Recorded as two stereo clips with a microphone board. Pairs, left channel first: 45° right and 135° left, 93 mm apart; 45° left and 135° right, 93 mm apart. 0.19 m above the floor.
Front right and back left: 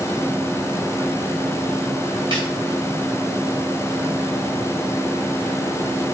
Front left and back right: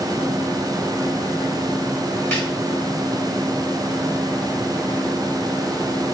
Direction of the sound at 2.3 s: 105° left.